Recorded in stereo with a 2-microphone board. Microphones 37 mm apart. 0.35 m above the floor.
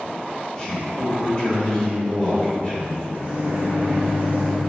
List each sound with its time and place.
0.6 s a man speaking: 20° left (ahead or behind), 1.0 m
3.1 s a microwave: 35° right (ahead or behind), 1.1 m